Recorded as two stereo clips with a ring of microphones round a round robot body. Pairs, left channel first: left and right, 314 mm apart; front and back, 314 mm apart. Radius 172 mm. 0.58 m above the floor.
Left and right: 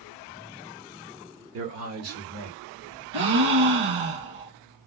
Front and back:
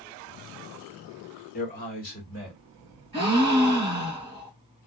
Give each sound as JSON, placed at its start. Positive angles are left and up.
{"t": 1.5, "sound": "a man speaking", "azimuth_deg": -60, "distance_m": 1.6}
{"t": 3.1, "sound": "a gasp", "azimuth_deg": -105, "distance_m": 1.9}